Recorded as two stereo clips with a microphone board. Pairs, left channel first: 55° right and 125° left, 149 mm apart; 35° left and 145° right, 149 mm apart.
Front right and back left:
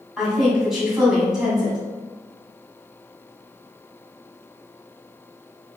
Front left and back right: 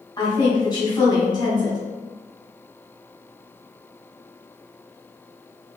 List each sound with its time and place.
0.2 s a woman speaking: 40° left, 1.5 m